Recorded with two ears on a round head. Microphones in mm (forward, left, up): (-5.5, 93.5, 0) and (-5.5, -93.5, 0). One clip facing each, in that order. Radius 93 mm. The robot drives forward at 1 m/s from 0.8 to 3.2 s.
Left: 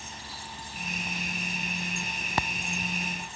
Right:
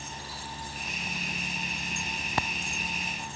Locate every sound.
Only background noise.